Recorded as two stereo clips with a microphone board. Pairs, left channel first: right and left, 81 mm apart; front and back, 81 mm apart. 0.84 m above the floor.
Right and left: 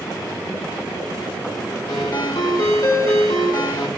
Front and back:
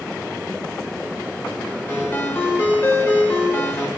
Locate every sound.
1.9 s a ringtone: 65° right, 1.1 m